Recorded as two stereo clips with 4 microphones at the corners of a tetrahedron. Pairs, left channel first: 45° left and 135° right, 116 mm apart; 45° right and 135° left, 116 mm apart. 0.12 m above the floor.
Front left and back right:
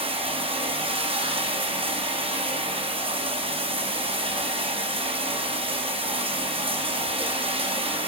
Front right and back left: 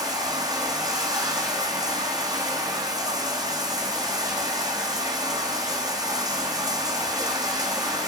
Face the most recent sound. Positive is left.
turn(degrees=-170)